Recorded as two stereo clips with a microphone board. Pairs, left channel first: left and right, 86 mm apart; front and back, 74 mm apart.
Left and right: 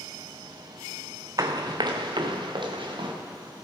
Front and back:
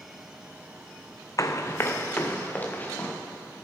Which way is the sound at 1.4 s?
45° right.